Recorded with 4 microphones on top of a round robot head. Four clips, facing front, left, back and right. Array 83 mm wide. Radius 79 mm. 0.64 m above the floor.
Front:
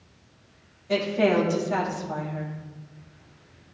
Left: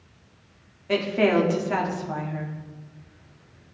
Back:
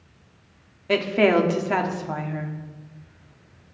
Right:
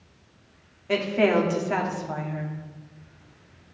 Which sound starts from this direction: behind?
A woman speaking, at 0.9 s.